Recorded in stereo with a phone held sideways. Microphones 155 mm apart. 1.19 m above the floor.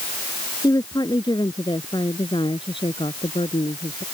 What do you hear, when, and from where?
0.6 s a woman speaking: 25° left (ahead or behind); by 4.0 s 40° left (ahead or behind)